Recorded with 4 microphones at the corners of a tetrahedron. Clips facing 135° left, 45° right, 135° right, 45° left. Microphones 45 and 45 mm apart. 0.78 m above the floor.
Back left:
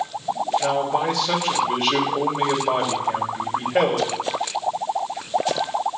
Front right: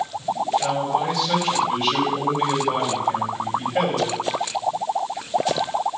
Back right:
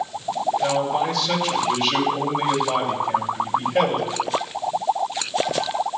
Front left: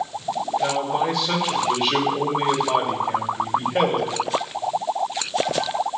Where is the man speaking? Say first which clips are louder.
Back left 1 dB, front left 1 dB; 115° left, 2.5 m.